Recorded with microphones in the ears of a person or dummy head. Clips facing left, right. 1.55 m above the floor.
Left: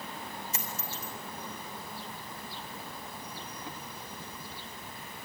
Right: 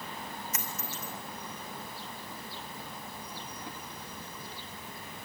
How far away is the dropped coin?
About 3 m.